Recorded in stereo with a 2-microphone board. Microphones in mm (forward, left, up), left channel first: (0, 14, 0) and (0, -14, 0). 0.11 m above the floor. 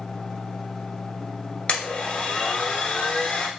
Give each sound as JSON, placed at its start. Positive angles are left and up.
{"t": 1.7, "sound": "a blender", "side_deg": 40, "distance_m": 1.0}